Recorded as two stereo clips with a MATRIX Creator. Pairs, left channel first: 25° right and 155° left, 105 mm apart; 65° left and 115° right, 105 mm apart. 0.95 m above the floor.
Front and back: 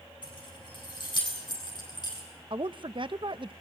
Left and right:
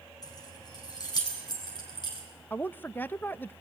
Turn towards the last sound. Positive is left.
turn(degrees=135)